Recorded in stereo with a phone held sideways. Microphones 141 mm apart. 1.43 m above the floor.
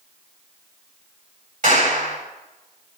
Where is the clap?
60° right (ahead or behind), 8.5 m.